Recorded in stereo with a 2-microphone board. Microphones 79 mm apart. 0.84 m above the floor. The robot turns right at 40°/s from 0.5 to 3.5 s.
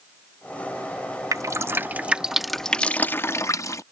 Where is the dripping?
45° right (ahead or behind); by 3.8 s 40° left (ahead or behind).